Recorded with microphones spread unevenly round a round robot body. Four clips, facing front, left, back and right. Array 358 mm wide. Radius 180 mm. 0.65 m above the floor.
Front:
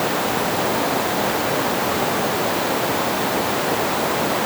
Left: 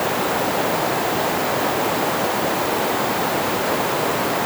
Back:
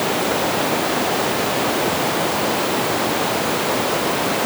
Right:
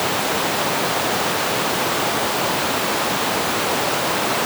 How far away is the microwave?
No microwave in this recording.